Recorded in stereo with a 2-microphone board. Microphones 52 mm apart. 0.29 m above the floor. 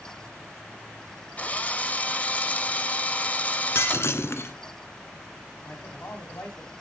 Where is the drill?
25° left (ahead or behind), 0.8 m.